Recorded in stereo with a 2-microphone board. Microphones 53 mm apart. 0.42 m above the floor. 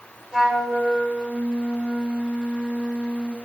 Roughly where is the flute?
Centre.